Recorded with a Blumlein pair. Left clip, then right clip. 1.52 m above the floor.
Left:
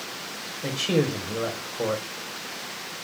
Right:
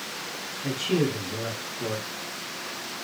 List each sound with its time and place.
0.6 s a man speaking: 50° left, 1.5 m